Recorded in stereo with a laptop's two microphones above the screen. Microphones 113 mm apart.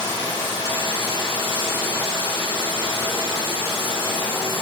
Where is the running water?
60° left (ahead or behind), 5.5 m.